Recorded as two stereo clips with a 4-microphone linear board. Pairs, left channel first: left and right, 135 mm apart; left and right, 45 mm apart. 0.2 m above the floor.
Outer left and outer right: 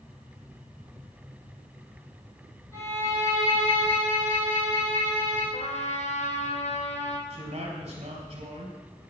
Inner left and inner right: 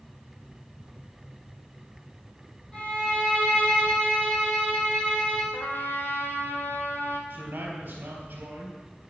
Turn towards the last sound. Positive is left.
turn(degrees=-50)  # may be behind; listen again after turning